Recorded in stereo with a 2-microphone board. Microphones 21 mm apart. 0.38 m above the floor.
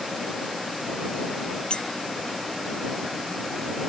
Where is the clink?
45° left (ahead or behind).